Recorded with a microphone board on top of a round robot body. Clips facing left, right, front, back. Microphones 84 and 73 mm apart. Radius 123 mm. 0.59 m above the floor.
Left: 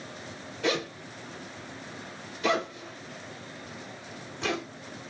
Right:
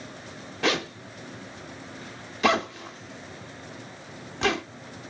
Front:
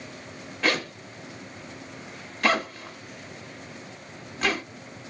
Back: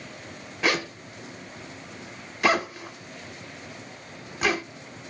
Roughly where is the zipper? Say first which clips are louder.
Right 2 dB, even; right.